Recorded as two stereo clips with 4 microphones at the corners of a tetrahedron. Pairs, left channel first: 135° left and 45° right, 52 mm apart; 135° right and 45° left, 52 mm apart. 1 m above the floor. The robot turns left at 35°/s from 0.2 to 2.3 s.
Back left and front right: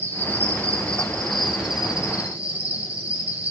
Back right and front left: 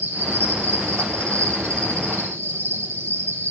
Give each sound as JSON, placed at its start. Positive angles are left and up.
{"t": 0.0, "sound": "an insect", "azimuth_deg": 90, "distance_m": 4.0}